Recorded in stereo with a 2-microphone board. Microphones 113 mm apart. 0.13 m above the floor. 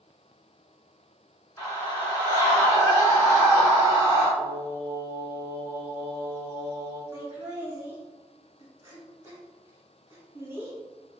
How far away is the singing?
About 1.0 m.